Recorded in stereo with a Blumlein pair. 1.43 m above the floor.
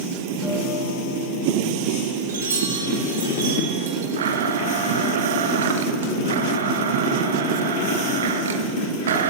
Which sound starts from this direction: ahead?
A guitar, at 0.4 s.